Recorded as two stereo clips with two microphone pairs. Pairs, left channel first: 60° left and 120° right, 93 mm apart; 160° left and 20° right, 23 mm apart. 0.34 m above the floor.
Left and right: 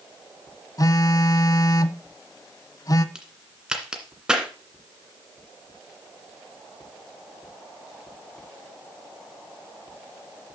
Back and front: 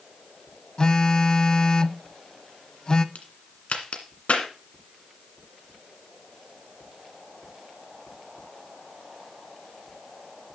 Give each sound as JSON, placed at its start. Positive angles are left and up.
{"t": 0.8, "sound": "a phone buzzing", "azimuth_deg": 110, "distance_m": 0.6}
{"t": 3.1, "sound": "a crack", "azimuth_deg": 160, "distance_m": 1.8}